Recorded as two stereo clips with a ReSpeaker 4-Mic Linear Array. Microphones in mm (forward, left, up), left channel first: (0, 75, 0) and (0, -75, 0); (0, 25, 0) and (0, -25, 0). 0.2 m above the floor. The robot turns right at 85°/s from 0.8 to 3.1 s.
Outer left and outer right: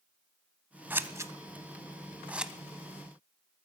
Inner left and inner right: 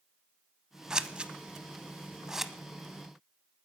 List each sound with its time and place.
0.9 s scissors: 15° right (ahead or behind), 0.7 m; by 2.5 s 5° right (ahead or behind), 0.7 m